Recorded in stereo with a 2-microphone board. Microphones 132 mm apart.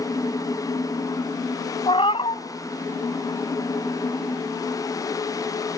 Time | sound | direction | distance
1.9 | a cat meowing | 40° left (ahead or behind) | 0.6 m